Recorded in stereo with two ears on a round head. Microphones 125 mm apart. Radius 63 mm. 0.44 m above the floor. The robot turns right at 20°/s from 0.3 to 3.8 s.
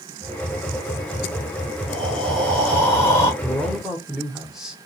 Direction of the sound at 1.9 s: Centre (ahead or behind).